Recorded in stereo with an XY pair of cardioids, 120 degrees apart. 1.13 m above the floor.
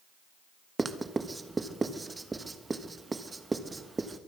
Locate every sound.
0.8 s writing: 20° right, 1.3 m